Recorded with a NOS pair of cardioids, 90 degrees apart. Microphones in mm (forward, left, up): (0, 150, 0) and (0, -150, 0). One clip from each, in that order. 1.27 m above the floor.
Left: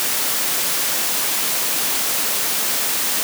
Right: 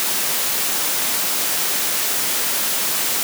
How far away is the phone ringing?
No phone ringing in this recording.